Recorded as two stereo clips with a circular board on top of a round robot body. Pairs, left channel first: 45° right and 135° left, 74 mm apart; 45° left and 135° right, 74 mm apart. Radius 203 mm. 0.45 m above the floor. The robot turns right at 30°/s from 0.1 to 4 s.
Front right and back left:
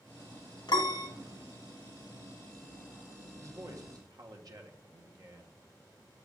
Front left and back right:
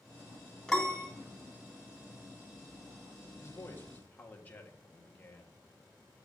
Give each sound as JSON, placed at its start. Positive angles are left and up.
{"t": 0.7, "sound": "a piano", "azimuth_deg": -35, "distance_m": 1.6}
{"t": 3.4, "sound": "a man speaking", "azimuth_deg": 95, "distance_m": 1.5}